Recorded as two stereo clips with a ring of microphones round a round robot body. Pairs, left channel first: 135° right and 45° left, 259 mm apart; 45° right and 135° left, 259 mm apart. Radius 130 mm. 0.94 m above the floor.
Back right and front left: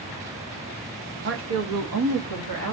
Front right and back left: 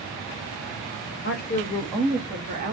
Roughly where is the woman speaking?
Ahead.